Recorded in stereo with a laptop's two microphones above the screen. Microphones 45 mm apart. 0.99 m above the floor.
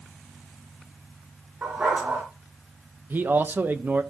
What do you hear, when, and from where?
1.6 s a dog barking: 35° right (ahead or behind), 3 m
3.1 s a man speaking: 45° right (ahead or behind), 0.9 m